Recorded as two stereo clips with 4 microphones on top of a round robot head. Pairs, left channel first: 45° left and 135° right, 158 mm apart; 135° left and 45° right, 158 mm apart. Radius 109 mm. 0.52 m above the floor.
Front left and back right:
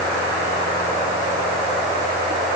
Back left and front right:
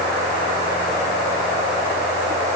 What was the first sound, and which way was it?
Only background noise.